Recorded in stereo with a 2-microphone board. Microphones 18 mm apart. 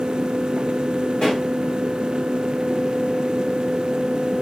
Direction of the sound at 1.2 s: 70° left (ahead or behind).